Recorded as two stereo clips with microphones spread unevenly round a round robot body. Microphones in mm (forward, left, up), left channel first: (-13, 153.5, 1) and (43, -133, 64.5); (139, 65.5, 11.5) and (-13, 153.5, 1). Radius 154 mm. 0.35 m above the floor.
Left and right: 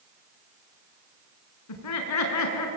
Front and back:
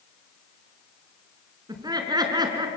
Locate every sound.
1.7 s laughter: 85° left, 5 m